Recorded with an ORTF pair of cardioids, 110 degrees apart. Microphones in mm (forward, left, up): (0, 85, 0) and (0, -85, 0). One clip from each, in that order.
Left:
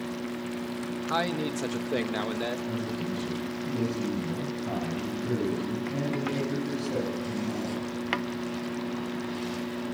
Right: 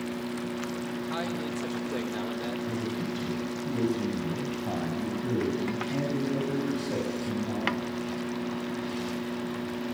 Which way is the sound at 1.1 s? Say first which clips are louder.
Left 7 dB; 45° left.